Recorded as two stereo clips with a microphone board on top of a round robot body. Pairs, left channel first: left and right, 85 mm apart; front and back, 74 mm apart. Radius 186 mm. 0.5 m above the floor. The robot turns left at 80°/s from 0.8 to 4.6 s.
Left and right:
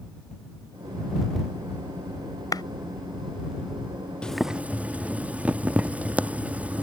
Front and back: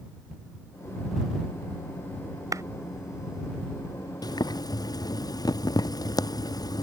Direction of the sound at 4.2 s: 10° left.